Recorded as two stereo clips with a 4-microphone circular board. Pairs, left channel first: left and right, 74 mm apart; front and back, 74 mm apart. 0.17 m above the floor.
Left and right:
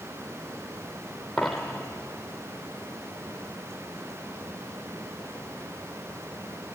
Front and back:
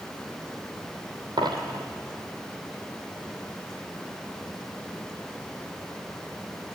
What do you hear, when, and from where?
1.4 s a dropped coin: straight behind, 3 m